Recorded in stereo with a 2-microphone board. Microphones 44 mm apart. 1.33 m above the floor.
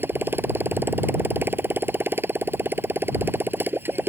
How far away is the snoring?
No snoring in this recording.